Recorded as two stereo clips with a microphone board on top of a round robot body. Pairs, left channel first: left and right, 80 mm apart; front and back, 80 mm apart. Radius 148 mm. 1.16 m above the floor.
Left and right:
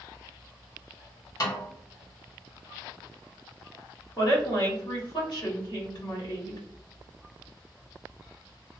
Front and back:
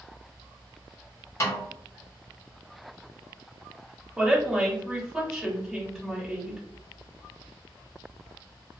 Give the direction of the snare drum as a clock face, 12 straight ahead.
10 o'clock.